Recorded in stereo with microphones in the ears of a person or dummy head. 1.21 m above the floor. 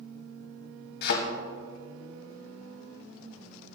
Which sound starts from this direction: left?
A thud, at 1.0 s.